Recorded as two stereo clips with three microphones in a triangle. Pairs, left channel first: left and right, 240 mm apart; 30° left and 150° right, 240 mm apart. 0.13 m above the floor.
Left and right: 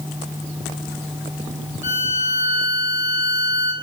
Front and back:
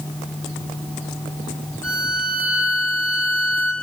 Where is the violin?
105° left, 1.0 m.